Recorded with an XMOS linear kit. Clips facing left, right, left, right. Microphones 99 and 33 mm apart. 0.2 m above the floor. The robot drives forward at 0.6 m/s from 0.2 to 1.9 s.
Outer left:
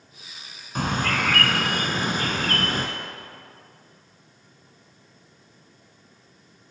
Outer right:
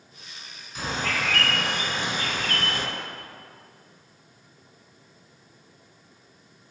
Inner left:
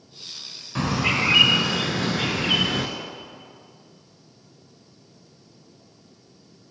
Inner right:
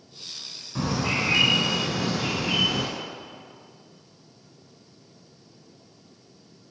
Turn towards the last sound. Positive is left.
turn(degrees=45)  # may be behind; listen again after turning